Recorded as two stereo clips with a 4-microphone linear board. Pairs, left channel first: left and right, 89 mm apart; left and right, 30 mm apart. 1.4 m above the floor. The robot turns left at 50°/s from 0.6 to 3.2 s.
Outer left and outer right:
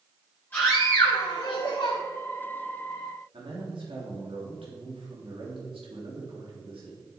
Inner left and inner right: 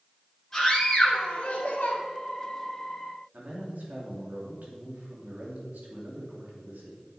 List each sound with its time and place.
0.5 s a scream: 160° left, 1.5 m; by 2.0 s 90° left, 1.5 m
3.3 s a man speaking: 80° right, 2.5 m